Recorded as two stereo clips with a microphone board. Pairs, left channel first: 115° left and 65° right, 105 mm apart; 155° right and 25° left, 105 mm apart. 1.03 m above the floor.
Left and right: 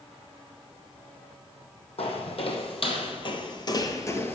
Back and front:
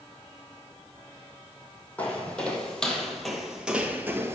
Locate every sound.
2.0 s footsteps: 125° left, 2.5 m; by 4.3 s 60° left, 1.1 m